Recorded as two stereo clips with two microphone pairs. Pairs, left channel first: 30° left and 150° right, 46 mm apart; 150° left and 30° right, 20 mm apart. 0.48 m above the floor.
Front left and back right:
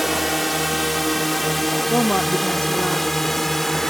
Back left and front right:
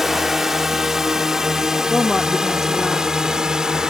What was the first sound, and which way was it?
A drone, 65° right.